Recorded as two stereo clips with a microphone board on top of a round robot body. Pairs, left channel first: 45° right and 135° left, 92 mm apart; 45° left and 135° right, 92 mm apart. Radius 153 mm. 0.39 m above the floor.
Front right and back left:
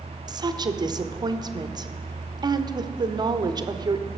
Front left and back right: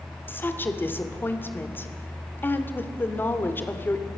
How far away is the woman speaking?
About 1.7 m.